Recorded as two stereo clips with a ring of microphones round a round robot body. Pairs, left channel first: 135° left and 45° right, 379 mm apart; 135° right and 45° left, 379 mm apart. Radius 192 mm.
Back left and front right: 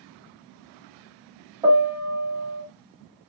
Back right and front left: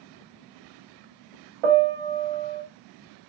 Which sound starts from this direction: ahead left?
A piano, at 1.6 s.